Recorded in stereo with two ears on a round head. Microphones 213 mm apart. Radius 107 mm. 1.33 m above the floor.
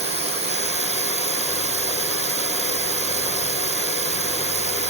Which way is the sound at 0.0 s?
25° right (ahead or behind).